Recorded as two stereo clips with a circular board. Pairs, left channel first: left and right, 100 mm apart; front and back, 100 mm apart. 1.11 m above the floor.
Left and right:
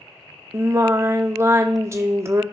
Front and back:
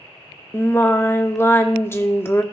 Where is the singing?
50° right, 0.7 m.